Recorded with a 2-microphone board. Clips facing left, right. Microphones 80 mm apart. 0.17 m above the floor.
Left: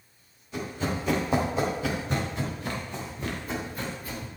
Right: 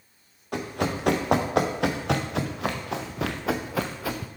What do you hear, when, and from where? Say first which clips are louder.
0.5 s running footsteps: right 3 dB; 60° right (ahead or behind), 3 m; by 4.3 s 85° right, 1.3 m